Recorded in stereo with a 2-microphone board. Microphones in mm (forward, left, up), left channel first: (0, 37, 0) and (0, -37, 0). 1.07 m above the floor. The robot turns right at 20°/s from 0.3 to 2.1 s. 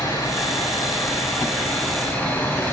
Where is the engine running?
115° left, 7 m; by 2.7 s 155° left, 7 m.